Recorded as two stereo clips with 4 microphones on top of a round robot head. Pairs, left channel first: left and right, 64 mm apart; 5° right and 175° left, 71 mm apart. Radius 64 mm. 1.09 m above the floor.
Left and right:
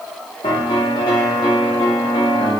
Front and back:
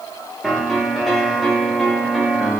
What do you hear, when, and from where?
0.4 s a piano: 90° left, 0.8 m